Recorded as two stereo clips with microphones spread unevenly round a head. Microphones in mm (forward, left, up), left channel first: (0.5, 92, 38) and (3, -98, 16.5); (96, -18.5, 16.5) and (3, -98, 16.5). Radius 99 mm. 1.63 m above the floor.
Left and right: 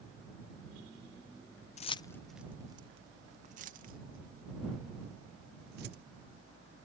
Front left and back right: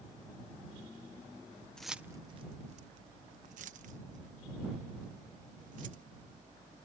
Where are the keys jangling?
125° left; by 6.0 s 130° right.